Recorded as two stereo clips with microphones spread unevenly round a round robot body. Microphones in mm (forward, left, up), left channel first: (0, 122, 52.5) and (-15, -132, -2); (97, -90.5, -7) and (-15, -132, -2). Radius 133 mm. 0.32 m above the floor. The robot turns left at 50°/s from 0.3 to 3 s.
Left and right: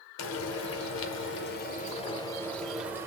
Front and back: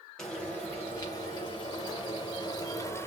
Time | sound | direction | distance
0.2 | frying | 100° left | 0.6 m